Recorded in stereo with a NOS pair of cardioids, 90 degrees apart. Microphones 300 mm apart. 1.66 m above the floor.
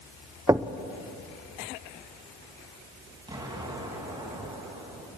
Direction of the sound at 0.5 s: 10° right.